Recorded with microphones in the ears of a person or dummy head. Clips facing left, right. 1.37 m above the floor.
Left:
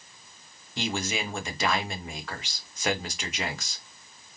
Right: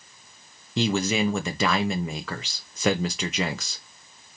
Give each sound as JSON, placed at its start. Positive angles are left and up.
{"t": 0.8, "sound": "a man speaking", "side_deg": -55, "distance_m": 0.7}